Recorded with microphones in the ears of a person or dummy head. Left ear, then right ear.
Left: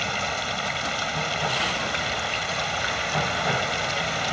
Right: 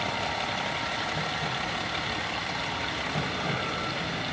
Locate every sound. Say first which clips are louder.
0.0 s running water: left 3 dB; 40° left (ahead or behind)